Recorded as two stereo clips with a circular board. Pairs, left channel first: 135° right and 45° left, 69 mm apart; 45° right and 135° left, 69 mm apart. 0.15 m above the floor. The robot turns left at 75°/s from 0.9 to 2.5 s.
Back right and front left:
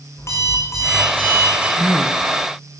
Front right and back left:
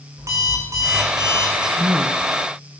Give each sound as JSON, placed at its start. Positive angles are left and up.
{"t": 0.2, "sound": "an alarm clock", "azimuth_deg": 180, "distance_m": 4.0}
{"t": 1.8, "sound": "a man speaking", "azimuth_deg": -175, "distance_m": 1.6}